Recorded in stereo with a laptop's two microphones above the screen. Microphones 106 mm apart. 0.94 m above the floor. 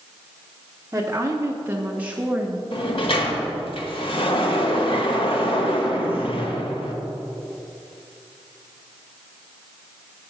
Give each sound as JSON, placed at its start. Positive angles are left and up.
{"t": 0.9, "sound": "a woman speaking", "side_deg": -25, "distance_m": 0.9}
{"t": 2.7, "sound": "a sliding door", "side_deg": 60, "distance_m": 1.2}